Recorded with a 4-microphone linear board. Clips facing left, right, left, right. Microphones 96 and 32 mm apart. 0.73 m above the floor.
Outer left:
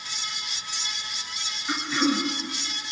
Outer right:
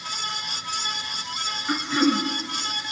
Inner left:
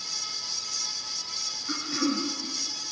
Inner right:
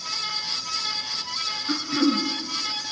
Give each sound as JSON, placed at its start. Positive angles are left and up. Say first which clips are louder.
{"t": 1.7, "sound": "throat clearing", "louder": "outer right 3 dB, inner right 6 dB", "side_deg": -15, "distance_m": 2.0}